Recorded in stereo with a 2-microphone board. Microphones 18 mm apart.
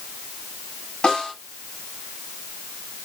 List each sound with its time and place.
1.0 s a snare drum: 60° left (ahead or behind), 4.5 m